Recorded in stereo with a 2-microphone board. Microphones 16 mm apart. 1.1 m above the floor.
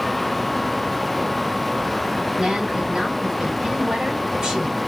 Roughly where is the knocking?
I don't hear knocking.